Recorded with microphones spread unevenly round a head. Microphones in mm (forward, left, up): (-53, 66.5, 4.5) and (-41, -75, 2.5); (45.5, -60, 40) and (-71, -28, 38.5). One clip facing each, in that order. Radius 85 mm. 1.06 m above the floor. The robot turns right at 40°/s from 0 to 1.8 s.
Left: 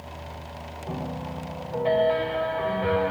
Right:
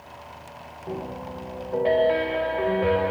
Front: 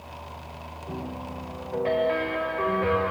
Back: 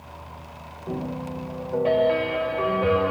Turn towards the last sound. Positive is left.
turn(degrees=-125)